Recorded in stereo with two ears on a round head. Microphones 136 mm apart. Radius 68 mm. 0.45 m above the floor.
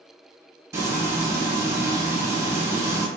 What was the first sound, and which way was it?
Frying, 20° right (ahead or behind).